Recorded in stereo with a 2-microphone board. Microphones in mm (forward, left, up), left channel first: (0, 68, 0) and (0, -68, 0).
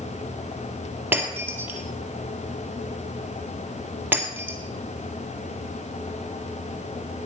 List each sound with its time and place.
1.1 s breaking glass: 15° right (ahead or behind), 2.5 m